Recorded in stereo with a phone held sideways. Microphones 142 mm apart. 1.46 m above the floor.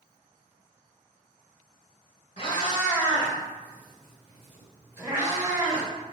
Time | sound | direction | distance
2.4 | a cat meowing | 40° left (ahead or behind) | 1.5 m